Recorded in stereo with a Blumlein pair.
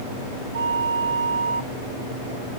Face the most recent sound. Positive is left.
turn(degrees=-65)